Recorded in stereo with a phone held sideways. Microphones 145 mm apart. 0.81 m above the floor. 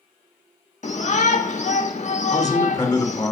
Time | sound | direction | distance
0.8 | a shout | 55° left (ahead or behind) | 1.3 m
2.3 | a man speaking | 25° left (ahead or behind) | 2.5 m